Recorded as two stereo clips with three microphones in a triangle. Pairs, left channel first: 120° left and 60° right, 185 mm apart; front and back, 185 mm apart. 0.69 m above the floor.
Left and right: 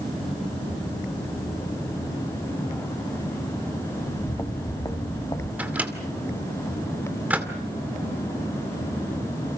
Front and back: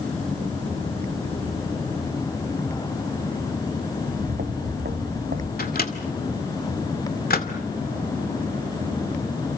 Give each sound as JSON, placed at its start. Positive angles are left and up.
{"t": 4.0, "sound": "footsteps", "azimuth_deg": -170, "distance_m": 3.0}
{"t": 5.6, "sound": "a microwave", "azimuth_deg": 20, "distance_m": 2.0}